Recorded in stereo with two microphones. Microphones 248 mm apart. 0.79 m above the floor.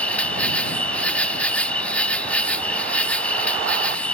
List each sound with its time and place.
0.0 s an insect: 5° left (ahead or behind)